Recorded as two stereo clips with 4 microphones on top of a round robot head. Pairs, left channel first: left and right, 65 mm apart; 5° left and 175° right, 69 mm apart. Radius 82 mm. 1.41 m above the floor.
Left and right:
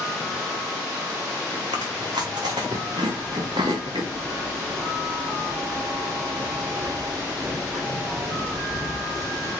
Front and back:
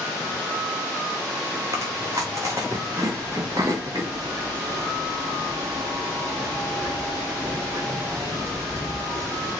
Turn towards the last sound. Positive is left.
turn(degrees=-130)